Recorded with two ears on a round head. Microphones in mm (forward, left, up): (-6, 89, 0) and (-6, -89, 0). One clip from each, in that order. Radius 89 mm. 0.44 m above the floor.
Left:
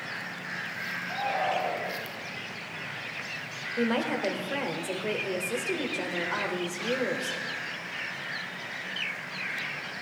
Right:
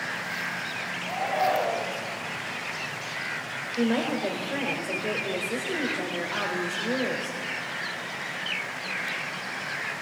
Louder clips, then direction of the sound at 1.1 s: Right 4 dB; 45° right (ahead or behind).